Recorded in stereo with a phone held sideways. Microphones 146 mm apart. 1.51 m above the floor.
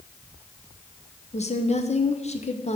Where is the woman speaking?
45° left (ahead or behind), 0.8 m.